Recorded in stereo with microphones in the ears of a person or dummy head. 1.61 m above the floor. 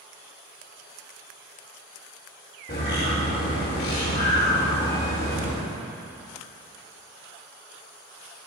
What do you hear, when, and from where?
2.7 s a bird: 40° left (ahead or behind), 1.5 m